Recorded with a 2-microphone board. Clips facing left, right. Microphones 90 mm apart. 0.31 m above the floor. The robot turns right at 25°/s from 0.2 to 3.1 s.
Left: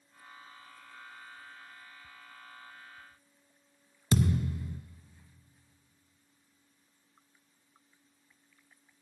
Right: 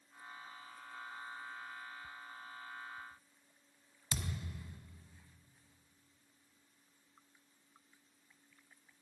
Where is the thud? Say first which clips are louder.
Left 15 dB; 70° left (ahead or behind), 0.8 m.